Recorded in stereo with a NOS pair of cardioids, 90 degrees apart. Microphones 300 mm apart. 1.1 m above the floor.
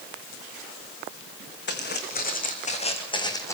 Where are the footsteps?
35° left, 6 m; by 3.5 s 10° left, 4.5 m.